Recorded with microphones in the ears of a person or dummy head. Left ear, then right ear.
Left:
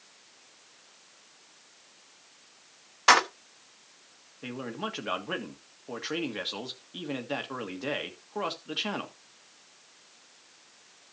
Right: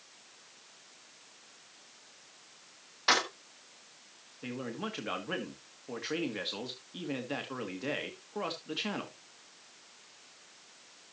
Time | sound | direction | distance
3.1 | keys jangling | 40° left (ahead or behind) | 1.1 m
4.4 | a man speaking | 25° left (ahead or behind) | 1.6 m